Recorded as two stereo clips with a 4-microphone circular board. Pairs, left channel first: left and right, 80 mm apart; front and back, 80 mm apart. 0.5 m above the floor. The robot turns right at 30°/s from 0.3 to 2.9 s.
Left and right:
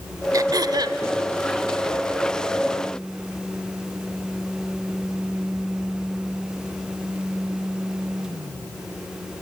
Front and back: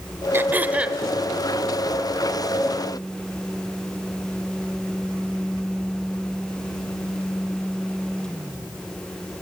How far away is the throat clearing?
About 1.3 m.